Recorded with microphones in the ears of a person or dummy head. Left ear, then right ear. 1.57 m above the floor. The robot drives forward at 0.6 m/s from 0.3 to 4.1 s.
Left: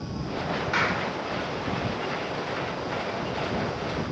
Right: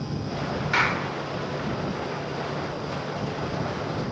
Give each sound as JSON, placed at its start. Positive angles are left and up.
{"t": 0.7, "sound": "a clap", "side_deg": -10, "distance_m": 3.5}